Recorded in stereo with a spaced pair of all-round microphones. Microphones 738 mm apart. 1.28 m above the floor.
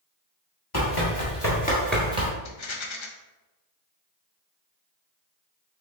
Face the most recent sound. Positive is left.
turn(degrees=45)  # may be behind; listen again after turning